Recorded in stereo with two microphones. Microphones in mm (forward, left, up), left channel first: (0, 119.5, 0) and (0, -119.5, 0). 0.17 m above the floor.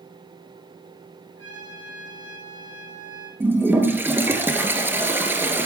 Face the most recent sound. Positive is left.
turn(degrees=-10)  # may be behind; listen again after turning